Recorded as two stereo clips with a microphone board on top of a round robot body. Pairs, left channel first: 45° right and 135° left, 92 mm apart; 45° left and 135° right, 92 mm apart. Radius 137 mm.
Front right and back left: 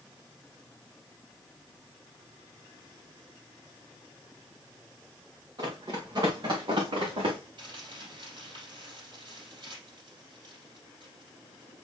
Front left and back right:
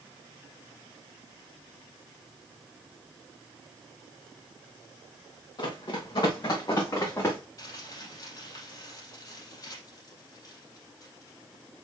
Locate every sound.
5.6 s running footsteps: 85° left, 3.5 m; by 7.4 s 105° left, 3 m
7.6 s crumpling: 95° left, 4 m